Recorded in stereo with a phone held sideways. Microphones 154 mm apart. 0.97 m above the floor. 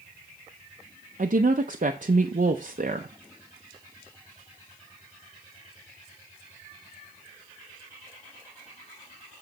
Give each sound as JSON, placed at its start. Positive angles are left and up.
{"t": 1.2, "sound": "a woman speaking", "side_deg": -60, "distance_m": 0.6}